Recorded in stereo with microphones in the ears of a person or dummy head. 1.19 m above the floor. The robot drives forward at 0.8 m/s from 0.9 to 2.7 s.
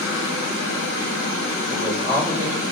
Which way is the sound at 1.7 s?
15° right (ahead or behind).